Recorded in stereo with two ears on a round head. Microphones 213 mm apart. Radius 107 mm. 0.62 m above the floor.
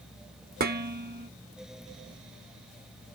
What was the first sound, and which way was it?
Dishes clattering, 40° right (ahead or behind).